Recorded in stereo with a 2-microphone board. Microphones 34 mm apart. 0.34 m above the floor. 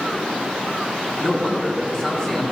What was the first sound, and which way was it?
A man speaking, 15° left (ahead or behind).